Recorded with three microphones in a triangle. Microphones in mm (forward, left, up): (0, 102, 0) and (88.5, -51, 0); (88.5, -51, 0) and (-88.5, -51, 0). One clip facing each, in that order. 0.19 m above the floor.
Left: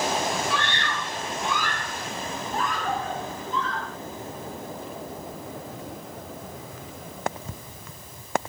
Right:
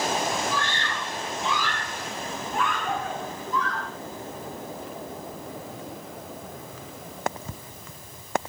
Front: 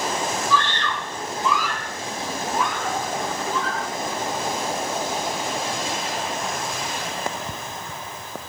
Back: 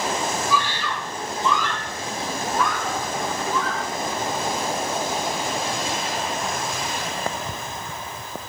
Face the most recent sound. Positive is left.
turn(degrees=55)